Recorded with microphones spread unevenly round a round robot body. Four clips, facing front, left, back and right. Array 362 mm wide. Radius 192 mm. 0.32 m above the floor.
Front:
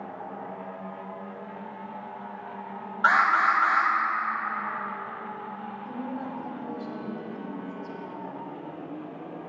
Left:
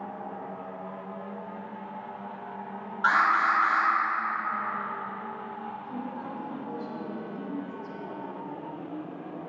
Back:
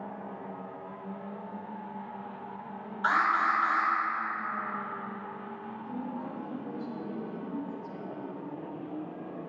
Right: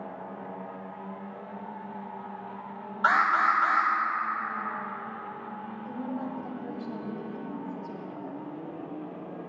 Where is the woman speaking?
55° right, 1.9 m.